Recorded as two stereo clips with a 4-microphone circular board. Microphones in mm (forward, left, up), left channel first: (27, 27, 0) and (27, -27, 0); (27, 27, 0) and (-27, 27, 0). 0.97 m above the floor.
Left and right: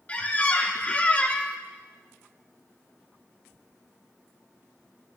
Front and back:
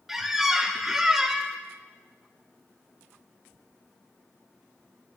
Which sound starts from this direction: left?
A squeak, at 0.1 s.